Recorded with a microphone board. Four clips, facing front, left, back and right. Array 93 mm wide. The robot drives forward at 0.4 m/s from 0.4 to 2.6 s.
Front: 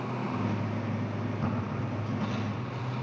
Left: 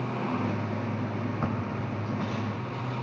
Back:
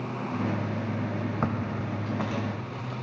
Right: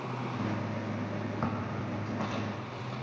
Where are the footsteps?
Straight behind, 2 m; by 2.9 s 165° right, 3.5 m.